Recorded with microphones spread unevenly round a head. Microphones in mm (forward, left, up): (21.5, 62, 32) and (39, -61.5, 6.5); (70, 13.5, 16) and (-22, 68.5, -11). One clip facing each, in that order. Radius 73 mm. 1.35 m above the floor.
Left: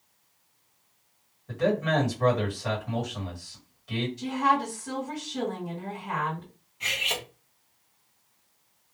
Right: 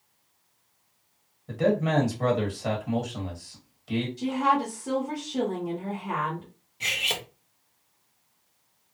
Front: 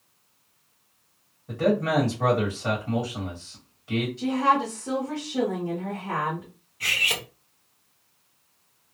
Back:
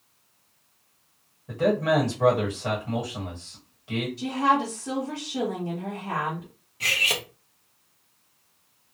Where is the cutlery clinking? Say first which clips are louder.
Even, back 1 dB; 140° right, 0.5 m.